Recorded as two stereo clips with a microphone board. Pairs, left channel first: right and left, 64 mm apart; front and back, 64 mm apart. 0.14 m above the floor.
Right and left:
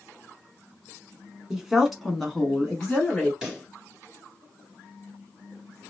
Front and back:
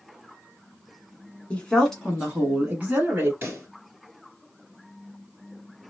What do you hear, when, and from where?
1.5 s a woman speaking: 25° left, 1.2 m; by 3.3 s 160° right, 1.3 m
3.4 s a pop: 160° left, 2 m